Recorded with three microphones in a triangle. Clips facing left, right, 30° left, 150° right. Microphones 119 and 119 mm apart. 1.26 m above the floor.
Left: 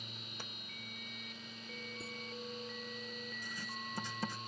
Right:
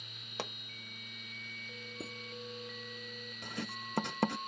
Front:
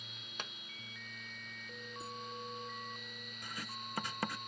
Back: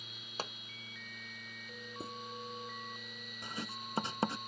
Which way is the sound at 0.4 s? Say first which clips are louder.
Right 12 dB, back 6 dB; 95° right.